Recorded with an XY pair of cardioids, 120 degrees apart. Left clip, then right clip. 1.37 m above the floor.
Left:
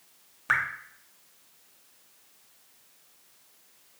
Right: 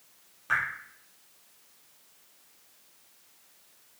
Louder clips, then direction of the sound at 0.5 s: Left 2 dB; 55° left.